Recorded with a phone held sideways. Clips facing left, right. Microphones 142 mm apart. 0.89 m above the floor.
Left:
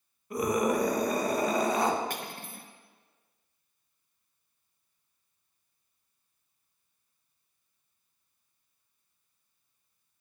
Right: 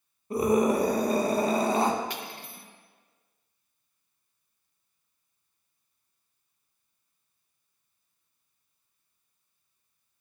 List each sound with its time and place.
0.3 s a scream: 30° right (ahead or behind), 0.7 m
2.1 s cutlery clinking: 45° left (ahead or behind), 0.5 m